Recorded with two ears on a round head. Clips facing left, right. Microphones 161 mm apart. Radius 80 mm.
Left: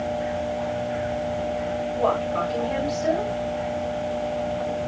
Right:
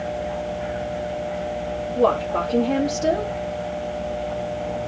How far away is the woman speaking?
About 3 m.